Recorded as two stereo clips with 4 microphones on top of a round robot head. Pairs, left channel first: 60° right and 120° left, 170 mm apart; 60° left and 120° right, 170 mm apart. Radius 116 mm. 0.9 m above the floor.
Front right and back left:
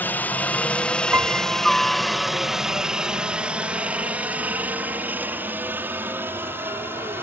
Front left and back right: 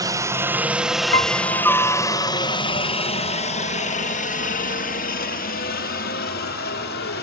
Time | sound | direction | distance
0.0 | a helicopter | 115° right | ?
1.1 | a piano | 40° left | ?